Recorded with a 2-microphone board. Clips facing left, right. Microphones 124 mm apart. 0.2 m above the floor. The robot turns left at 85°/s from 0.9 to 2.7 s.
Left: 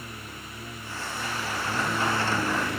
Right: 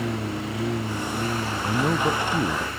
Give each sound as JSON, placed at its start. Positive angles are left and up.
{"t": 0.0, "sound": "a lawn mower", "azimuth_deg": -95}
{"t": 1.6, "sound": "a man speaking", "azimuth_deg": -40}